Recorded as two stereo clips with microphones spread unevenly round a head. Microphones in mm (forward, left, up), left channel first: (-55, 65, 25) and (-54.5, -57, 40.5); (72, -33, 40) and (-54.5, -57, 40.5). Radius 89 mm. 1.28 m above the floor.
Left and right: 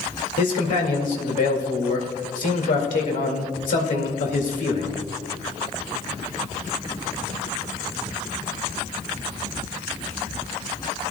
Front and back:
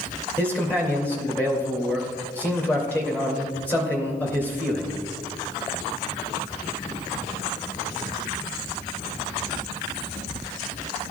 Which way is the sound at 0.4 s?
90° left.